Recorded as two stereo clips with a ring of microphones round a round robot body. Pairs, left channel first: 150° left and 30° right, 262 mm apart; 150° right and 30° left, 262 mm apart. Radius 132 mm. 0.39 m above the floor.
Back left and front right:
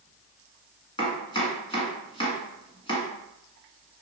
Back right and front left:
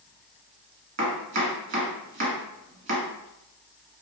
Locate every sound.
1.0 s chopping: 80° left, 1.4 m